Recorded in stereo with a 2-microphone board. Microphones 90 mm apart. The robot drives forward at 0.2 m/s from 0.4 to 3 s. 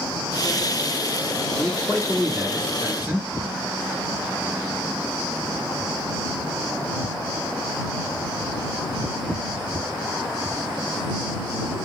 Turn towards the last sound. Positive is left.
turn(degrees=-20)  # may be behind; listen again after turning